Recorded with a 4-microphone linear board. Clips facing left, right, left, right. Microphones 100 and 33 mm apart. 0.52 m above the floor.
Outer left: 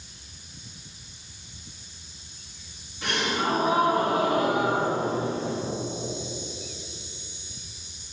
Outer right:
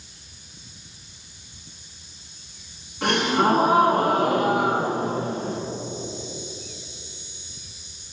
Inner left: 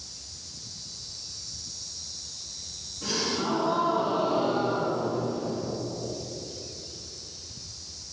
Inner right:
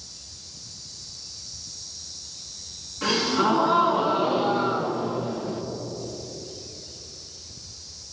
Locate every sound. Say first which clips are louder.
3.0 s a gasp: outer right 7 dB, inner right 7 dB; 55° right (ahead or behind), 5 m